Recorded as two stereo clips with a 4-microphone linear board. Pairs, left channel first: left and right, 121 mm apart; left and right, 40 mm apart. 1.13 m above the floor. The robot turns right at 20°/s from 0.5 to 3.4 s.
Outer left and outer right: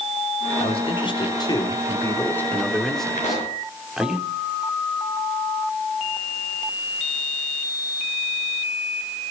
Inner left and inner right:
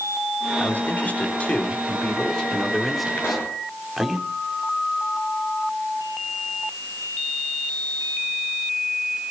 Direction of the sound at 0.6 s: 130° left.